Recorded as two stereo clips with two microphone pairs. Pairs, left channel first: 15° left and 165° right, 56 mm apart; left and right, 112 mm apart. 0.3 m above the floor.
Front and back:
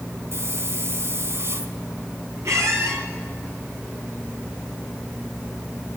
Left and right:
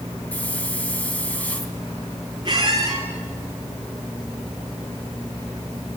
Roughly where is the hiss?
Behind.